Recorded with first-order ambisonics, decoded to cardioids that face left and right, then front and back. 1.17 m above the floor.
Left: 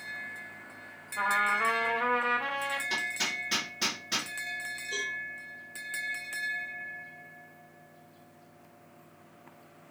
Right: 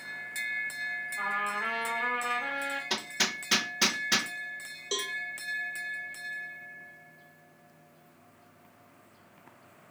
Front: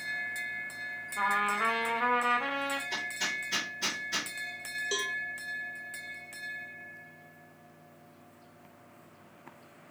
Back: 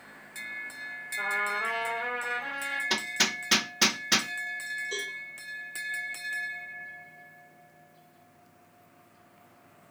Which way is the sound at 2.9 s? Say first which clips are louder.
Even, back 5 dB; 155° right.